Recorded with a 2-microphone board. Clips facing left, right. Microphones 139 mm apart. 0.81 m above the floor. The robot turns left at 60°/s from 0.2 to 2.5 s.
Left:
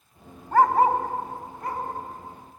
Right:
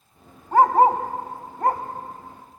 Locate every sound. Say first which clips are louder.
0.5 s a dog barking: right 3 dB; 15° right (ahead or behind), 1.4 m; by 1.8 s 70° right (ahead or behind), 1.4 m